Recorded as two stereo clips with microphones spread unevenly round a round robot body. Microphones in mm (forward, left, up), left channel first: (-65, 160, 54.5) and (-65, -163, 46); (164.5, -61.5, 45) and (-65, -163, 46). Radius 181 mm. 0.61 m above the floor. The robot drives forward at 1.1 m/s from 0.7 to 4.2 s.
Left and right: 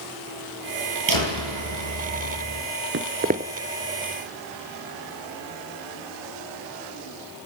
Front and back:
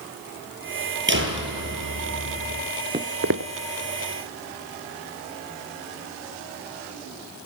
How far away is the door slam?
About 9 m.